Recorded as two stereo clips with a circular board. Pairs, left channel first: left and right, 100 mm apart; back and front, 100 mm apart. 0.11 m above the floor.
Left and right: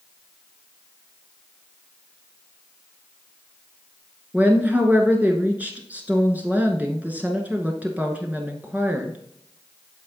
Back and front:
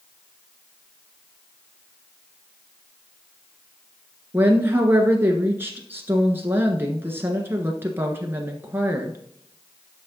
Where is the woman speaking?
35° right, 1.2 m.